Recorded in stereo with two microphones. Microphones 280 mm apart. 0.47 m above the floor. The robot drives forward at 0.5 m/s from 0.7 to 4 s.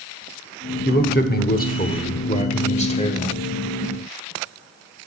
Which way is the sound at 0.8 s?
35° left (ahead or behind).